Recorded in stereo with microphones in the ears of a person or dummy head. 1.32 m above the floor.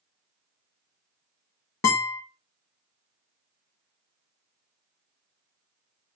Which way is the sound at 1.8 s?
20° left (ahead or behind).